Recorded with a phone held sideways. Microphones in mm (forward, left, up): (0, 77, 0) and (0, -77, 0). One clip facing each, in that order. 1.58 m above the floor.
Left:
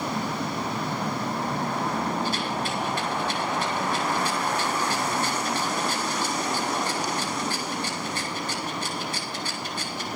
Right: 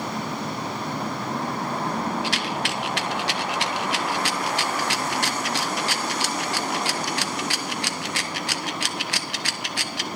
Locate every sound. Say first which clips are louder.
2.2 s a rattle: even; 70° right (ahead or behind), 0.8 m